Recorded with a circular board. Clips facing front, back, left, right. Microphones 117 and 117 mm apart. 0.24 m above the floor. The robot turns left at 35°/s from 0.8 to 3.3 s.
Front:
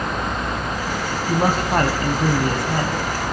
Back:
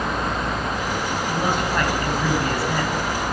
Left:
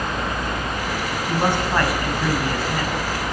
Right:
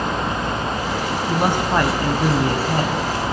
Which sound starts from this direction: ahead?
A man speaking, at 1.3 s.